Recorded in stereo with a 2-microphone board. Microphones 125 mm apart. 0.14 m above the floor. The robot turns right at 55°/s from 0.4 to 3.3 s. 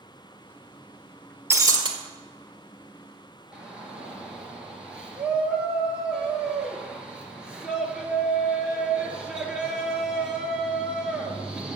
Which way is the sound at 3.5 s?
10° right (ahead or behind).